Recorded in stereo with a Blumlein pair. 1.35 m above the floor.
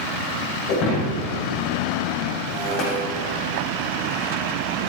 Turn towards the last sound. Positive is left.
turn(degrees=40)